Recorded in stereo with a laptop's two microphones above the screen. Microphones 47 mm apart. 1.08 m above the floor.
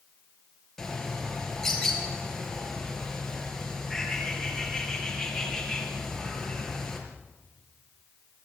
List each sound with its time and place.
0.8 s a bird: 10° left (ahead or behind), 4 m